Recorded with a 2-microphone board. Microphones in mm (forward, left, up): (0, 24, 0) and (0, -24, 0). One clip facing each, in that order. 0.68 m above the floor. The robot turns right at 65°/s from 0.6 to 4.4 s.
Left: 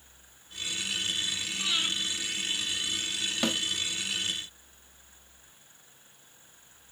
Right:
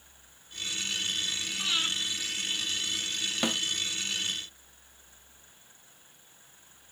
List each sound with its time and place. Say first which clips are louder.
1.6 s breathing: even; 5° right (ahead or behind), 1.8 m; by 1.9 s 25° right (ahead or behind), 1.8 m
3.4 s a snare drum: left 1 dB; 10° right (ahead or behind), 0.6 m; by 3.6 s 15° right (ahead or behind), 0.6 m